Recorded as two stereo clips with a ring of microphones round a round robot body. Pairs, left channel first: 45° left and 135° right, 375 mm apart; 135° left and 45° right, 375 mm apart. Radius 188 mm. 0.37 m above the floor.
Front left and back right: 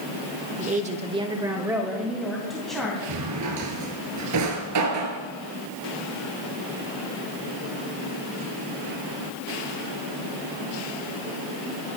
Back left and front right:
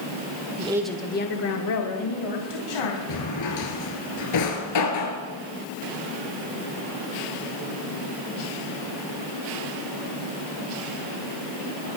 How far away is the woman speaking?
About 1.1 m.